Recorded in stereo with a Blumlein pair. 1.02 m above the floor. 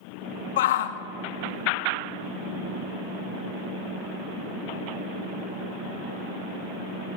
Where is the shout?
55° left, 0.7 m.